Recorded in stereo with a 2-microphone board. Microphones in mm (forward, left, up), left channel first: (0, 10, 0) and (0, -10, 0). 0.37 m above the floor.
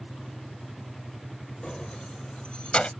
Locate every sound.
1.6 s keys jangling: 40° left (ahead or behind); by 2.9 s 65° left (ahead or behind)